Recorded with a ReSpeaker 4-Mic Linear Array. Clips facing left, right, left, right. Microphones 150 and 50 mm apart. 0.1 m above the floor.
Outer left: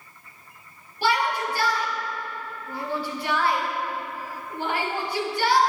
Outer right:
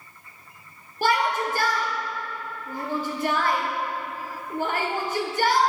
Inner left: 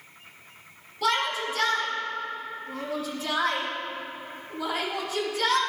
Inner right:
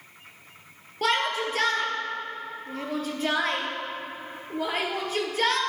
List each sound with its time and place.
1.0 s a shout: 50° right (ahead or behind), 1.9 m